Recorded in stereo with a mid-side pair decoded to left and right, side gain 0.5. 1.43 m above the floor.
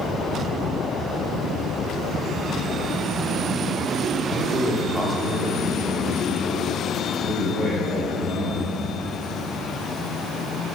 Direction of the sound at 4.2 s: 45° right.